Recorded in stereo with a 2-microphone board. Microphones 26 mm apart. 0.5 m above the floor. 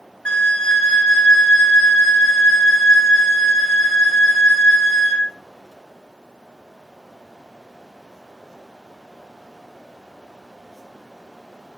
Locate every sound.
0.2 s a flute: 40° left (ahead or behind), 0.7 m